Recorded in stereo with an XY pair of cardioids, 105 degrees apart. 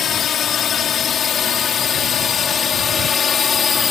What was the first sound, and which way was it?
A drone, 55° left.